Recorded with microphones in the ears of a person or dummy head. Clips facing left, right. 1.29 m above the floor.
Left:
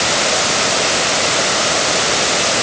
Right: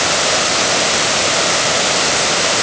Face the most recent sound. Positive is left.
No sound to turn to.